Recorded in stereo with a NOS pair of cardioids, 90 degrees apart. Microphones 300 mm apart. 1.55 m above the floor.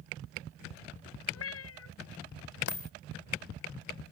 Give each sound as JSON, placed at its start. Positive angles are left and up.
{"t": 1.3, "sound": "a cat meowing", "azimuth_deg": 55}
{"t": 2.7, "sound": "a dropped coin", "azimuth_deg": 45}